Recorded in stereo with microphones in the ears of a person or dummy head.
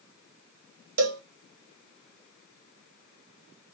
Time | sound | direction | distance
1.0 | a cowbell | 70° right (ahead or behind) | 0.6 m